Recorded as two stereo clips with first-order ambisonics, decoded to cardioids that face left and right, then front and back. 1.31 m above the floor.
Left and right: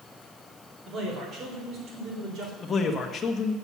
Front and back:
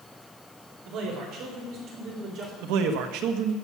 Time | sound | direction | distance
0.8 | a man speaking | 150° right | 3.5 m
2.6 | a man speaking | 160° left | 1.4 m